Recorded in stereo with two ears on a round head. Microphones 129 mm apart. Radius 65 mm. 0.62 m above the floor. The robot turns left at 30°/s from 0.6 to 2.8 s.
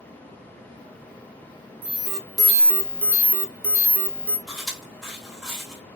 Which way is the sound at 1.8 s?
15° right (ahead or behind).